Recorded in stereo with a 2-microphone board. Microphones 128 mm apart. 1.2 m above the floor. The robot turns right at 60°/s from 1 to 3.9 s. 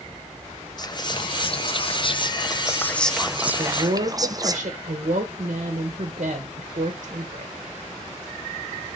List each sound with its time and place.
0.8 s whispering: 45° left, 0.6 m; by 4.6 s 140° right, 0.6 m
3.6 s a woman speaking: 50° right (ahead or behind), 1.1 m; by 7.5 s 60° right (ahead or behind), 1.1 m